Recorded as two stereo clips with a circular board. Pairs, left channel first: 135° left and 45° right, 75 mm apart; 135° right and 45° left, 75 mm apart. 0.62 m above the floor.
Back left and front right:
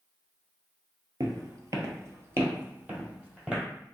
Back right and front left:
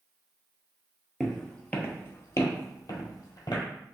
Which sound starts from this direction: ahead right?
Footsteps, at 1.2 s.